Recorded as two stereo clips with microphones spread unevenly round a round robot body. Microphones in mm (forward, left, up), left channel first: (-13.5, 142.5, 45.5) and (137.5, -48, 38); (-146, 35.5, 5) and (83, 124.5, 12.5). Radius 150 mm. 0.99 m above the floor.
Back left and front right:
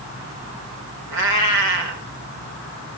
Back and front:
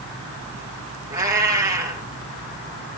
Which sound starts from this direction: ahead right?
A cat meowing, at 1.1 s.